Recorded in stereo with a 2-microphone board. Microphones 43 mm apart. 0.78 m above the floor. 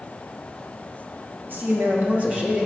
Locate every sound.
1.5 s a man speaking: 55° right (ahead or behind), 1.5 m; by 2.7 s 25° right (ahead or behind), 1.4 m